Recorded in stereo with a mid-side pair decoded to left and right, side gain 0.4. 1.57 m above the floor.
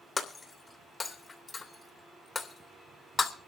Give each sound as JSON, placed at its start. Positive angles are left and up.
{"t": 0.2, "sound": "breaking glass", "azimuth_deg": 30, "distance_m": 3.0}